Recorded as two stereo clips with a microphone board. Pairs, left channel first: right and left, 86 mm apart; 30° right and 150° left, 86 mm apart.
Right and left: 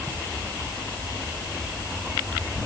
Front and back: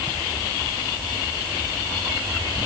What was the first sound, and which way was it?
Only background noise.